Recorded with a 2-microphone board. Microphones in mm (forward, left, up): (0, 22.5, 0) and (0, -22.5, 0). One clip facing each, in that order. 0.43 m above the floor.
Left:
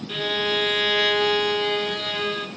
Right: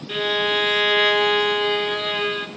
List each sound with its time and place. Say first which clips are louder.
0.1 s a violin: right 3 dB; 20° right (ahead or behind), 0.9 m